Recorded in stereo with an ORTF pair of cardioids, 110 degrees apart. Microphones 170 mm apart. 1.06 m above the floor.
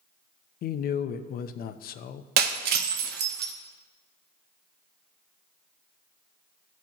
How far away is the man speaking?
About 0.6 m.